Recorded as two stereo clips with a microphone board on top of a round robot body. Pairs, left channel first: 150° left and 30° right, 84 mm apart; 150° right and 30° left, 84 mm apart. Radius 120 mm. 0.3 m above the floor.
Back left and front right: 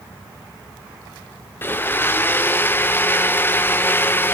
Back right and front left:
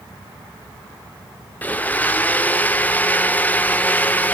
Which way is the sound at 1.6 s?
170° left.